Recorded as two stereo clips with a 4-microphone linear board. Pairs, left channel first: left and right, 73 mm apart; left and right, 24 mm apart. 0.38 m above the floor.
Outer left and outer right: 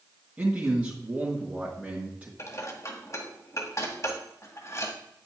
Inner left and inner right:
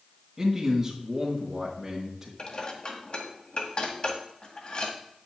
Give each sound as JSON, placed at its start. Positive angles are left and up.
{"t": 0.4, "sound": "a man speaking", "side_deg": -15, "distance_m": 4.0}
{"t": 2.4, "sound": "dishes clattering", "side_deg": 45, "distance_m": 1.7}